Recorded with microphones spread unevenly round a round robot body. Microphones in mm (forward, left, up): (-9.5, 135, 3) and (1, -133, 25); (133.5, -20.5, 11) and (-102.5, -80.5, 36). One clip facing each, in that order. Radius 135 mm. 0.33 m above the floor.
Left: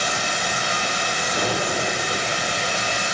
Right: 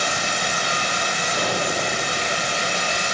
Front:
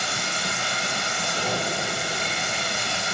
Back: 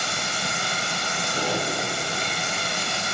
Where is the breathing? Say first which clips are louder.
Left 1 dB, back 2 dB; 130° left, 3 m.